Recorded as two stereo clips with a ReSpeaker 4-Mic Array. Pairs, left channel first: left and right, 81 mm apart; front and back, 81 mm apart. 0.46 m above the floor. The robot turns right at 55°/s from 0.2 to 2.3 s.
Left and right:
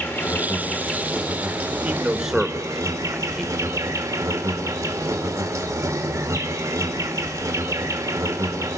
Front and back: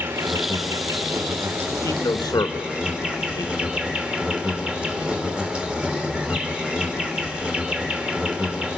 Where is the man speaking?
40° right, 1.2 m; by 3.8 s 5° right, 1.2 m.